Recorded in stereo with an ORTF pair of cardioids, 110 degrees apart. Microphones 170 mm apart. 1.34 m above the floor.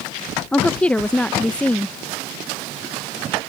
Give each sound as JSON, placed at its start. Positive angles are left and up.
{"t": 0.5, "sound": "a woman speaking", "azimuth_deg": 5}